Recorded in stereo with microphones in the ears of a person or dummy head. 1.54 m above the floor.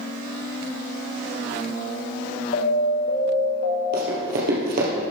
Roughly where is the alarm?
Left.